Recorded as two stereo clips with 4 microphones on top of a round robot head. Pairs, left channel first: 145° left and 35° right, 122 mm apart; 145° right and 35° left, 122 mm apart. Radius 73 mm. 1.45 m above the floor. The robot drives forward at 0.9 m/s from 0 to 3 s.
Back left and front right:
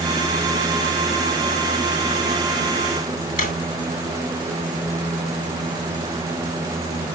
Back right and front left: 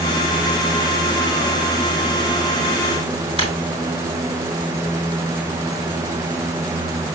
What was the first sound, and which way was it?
A drawer, 170° left.